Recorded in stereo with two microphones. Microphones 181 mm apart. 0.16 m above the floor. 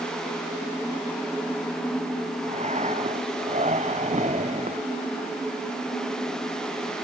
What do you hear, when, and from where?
2.5 s breathing: 40° right (ahead or behind)